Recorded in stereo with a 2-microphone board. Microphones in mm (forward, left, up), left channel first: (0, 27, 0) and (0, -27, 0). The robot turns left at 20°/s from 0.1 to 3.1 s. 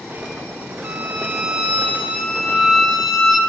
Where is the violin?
140° right, 1.0 m; by 3.4 s 175° left, 1.0 m.